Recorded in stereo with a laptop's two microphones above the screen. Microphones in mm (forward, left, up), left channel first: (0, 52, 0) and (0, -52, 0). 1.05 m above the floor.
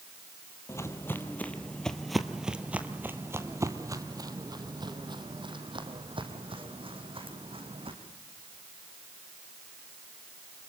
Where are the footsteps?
25° left (ahead or behind), 1.7 m; by 7.9 s 70° right (ahead or behind), 3.5 m.